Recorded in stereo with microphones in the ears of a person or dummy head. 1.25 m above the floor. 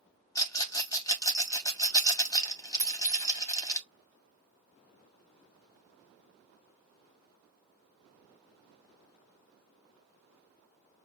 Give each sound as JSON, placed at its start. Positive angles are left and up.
{"t": 0.3, "sound": "a rattle", "side_deg": 10, "distance_m": 0.5}
{"t": 2.8, "sound": "a clink", "side_deg": -25, "distance_m": 3.5}